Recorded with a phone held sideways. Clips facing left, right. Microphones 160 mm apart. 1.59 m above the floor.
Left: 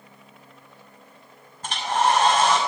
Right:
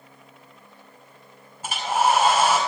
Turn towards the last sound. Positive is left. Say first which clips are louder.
# even
turn(degrees=-10)  # may be behind; listen again after turning